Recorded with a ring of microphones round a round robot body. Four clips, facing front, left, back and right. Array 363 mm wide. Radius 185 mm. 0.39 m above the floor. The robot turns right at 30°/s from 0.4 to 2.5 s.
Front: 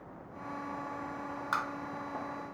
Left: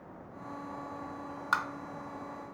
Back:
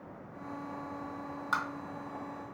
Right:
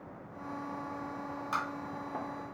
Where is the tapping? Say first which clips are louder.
Left 4 dB, back 1 dB; 90° left, 0.9 m; by 1.6 s 95° left, 0.9 m.